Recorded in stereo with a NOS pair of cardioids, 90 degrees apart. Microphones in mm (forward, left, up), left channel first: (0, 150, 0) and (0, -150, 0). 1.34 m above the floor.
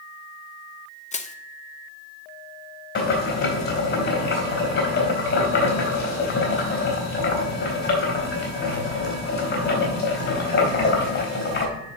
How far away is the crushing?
About 0.8 m.